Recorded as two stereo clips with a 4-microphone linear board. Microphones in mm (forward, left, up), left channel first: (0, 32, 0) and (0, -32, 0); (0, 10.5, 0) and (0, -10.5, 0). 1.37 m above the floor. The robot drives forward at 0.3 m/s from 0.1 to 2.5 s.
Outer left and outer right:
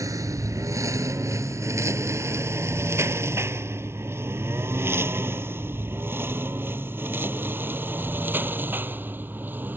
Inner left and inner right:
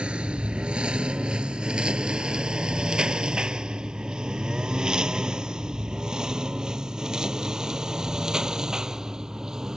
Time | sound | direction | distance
0.0 | a lawn mower | 60° right (ahead or behind) | ?